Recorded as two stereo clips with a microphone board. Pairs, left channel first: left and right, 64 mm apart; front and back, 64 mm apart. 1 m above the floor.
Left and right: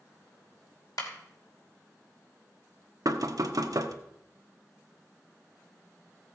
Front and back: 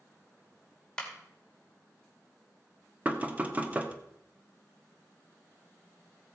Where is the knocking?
115° right, 1.0 m.